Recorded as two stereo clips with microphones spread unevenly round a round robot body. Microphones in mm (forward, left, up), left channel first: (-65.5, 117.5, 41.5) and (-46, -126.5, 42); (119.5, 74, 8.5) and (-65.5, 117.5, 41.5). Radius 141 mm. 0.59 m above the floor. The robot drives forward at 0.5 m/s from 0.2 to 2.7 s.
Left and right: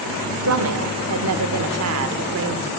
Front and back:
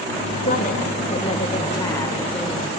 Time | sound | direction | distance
0.4 | a woman speaking | 65° right | 1.9 m